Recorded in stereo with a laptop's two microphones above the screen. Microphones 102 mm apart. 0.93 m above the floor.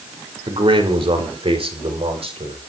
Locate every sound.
0.5 s a man speaking: 60° right (ahead or behind), 3.5 m; by 2.6 s 70° right (ahead or behind), 4.5 m